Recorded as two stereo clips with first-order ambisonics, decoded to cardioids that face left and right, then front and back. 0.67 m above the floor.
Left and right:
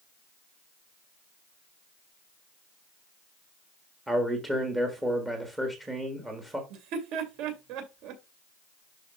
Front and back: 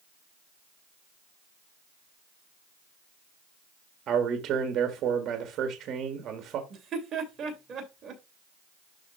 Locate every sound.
4.1 s a man speaking: 170° right, 1.4 m
6.7 s laughter: 115° right, 2.5 m